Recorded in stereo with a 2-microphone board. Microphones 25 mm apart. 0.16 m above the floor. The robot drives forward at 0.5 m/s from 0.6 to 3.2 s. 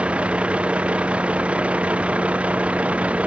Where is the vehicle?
50° right (ahead or behind); by 3.3 s 55° right (ahead or behind).